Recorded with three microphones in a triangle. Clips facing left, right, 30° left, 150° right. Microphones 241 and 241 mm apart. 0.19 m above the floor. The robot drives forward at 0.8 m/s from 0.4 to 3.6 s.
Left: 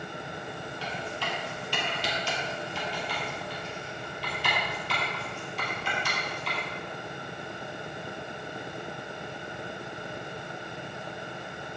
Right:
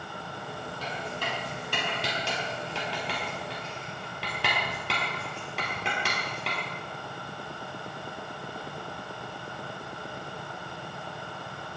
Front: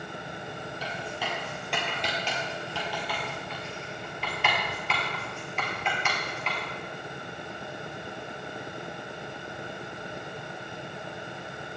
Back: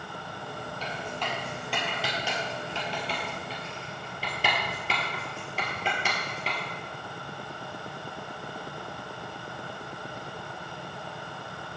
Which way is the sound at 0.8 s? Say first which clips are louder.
Even, back 1 dB; 50° right.